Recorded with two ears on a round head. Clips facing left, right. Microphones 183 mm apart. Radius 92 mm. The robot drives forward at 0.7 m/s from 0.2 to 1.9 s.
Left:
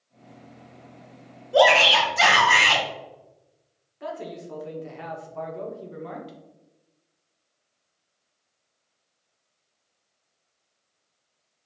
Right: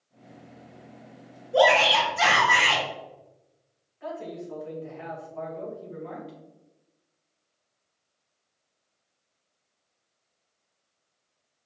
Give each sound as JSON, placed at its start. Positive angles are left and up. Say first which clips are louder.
{"t": 1.5, "sound": "a shout", "louder": "left 2 dB", "side_deg": 50, "distance_m": 1.8}
{"t": 4.0, "sound": "a man speaking", "louder": "left 1 dB", "side_deg": 65, "distance_m": 1.5}